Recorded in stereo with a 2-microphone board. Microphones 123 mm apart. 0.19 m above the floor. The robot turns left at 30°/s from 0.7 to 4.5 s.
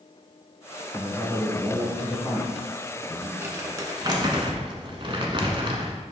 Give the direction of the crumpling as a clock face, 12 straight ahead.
1 o'clock.